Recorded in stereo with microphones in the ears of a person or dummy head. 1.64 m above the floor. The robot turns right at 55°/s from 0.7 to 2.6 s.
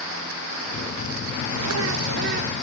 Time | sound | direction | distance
1.5 | a bird | 105° right | 0.9 m